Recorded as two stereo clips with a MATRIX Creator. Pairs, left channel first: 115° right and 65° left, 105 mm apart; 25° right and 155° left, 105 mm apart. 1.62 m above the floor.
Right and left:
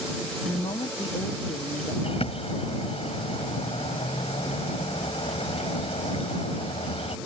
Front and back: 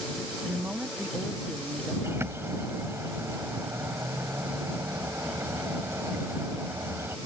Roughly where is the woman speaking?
Behind right.